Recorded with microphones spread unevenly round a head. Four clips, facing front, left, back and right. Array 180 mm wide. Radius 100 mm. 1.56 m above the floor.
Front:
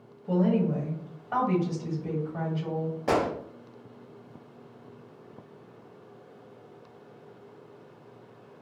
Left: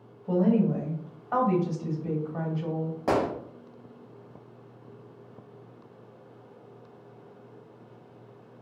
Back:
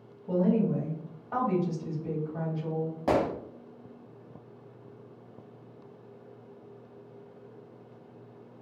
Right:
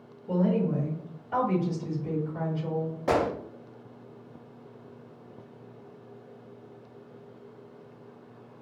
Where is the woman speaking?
50° left, 1.4 m.